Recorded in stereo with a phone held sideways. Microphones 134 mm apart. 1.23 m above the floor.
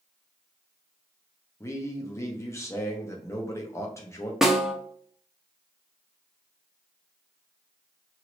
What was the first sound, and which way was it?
A man speaking, 20° left (ahead or behind).